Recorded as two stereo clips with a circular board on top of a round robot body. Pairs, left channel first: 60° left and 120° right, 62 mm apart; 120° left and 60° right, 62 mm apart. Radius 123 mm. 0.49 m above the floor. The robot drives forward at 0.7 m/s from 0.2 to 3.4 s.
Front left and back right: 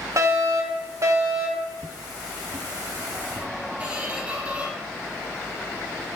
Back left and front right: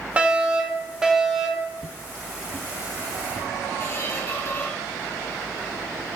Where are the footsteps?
140° right, 0.6 m; by 3.5 s straight behind, 3 m.